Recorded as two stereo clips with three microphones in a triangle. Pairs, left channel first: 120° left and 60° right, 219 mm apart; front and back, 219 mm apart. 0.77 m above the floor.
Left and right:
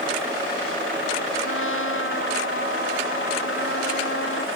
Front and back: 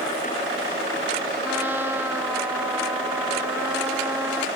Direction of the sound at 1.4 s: 100° left.